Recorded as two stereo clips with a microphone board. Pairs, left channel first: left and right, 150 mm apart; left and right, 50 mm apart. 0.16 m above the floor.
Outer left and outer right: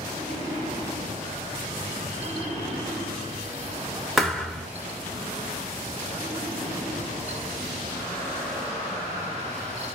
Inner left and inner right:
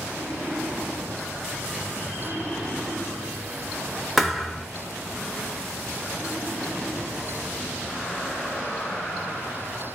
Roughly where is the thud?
Centre.